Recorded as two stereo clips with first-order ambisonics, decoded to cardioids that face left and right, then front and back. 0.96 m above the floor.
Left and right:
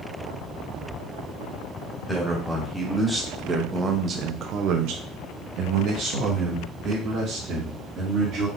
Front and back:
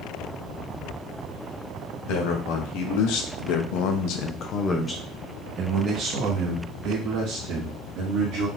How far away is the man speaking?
About 1.6 m.